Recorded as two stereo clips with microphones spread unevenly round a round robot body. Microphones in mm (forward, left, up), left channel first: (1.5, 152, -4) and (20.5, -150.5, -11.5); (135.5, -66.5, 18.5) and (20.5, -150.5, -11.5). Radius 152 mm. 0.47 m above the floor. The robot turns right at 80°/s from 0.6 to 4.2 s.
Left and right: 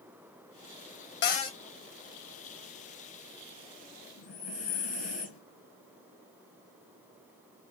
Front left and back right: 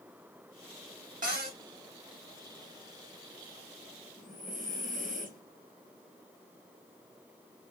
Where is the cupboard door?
150° left, 0.6 m; by 1.6 s straight behind, 0.6 m.